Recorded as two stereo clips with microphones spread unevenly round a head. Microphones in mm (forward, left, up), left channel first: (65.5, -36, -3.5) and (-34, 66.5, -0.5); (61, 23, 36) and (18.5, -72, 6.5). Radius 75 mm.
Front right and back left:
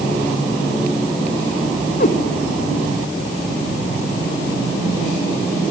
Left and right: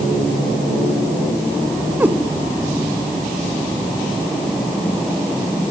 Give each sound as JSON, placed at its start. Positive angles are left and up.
{"t": 2.0, "sound": "a cat meowing", "azimuth_deg": -30, "distance_m": 1.5}